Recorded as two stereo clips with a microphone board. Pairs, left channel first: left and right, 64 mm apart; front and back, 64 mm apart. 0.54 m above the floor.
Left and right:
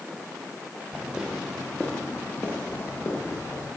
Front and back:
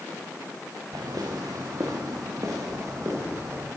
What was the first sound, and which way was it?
Footsteps, 170° right.